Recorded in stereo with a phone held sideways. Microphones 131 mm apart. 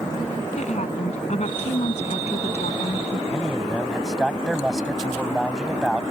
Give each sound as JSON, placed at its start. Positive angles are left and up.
{"t": 0.6, "sound": "a woman speaking", "side_deg": 60}
{"t": 3.3, "sound": "a man speaking", "side_deg": 0}